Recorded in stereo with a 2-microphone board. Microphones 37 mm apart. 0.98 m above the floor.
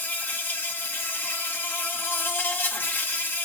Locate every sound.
0.0 s an insect: 80° left, 1.4 m